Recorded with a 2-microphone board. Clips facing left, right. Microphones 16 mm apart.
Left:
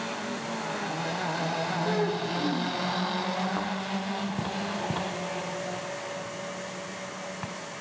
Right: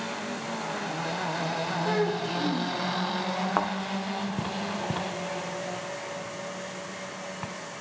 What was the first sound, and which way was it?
A child speaking, 30° right (ahead or behind).